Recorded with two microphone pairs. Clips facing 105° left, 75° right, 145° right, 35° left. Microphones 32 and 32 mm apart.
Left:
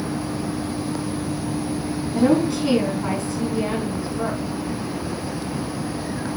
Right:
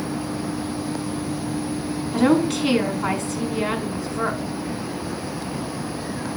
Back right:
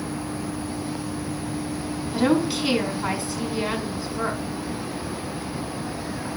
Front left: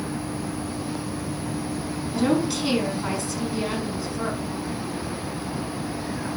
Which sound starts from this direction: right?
A woman speaking, at 2.1 s.